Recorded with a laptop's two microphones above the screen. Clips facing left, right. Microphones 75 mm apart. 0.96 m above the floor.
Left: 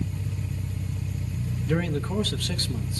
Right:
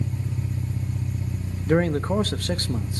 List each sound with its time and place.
0.0 s an engine running: 25° right (ahead or behind), 1.7 m
1.7 s a man speaking: 40° right (ahead or behind), 1.0 m